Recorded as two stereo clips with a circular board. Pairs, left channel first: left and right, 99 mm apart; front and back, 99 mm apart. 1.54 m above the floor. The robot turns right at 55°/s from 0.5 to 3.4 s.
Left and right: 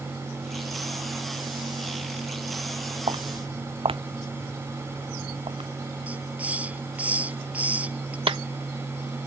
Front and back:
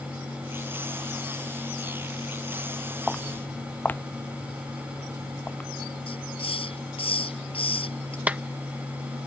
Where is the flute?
No flute in this recording.